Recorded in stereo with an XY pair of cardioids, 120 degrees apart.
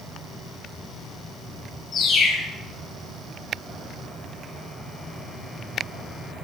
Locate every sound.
1.9 s a bird: 45° left, 7.5 m